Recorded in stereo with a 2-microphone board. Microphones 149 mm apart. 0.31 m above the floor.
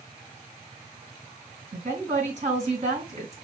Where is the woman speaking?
50° right (ahead or behind), 3 m.